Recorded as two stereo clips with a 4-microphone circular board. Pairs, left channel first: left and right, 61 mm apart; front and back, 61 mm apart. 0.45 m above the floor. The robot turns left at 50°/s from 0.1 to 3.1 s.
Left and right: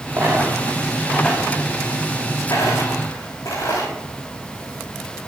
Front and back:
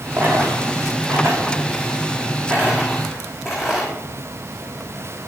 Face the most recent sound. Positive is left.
turn(degrees=95)